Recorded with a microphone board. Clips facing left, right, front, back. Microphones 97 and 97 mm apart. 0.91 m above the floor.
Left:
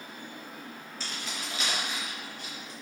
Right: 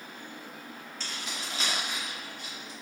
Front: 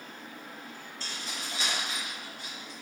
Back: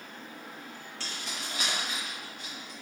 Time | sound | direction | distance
1.0 | keys jangling | 175° left | 0.9 m